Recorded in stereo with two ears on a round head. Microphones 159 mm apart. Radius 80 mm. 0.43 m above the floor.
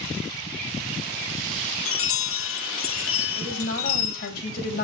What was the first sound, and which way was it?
A chime, 80° left.